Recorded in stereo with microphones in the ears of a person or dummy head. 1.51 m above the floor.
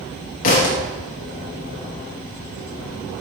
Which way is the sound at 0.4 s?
35° left (ahead or behind).